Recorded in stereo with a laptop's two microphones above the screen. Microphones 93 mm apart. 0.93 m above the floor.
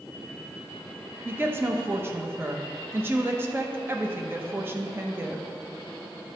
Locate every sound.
1.2 s a woman speaking: 25° right (ahead or behind), 0.7 m